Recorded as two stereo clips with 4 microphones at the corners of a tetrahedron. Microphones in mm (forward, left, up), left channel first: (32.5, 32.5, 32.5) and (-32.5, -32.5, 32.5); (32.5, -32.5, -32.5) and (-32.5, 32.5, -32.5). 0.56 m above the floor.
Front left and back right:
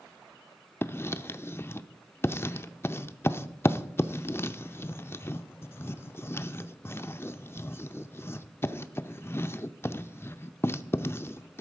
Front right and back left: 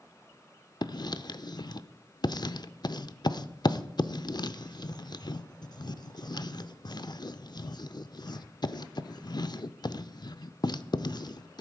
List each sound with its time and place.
0.8 s writing: 15° right, 0.5 m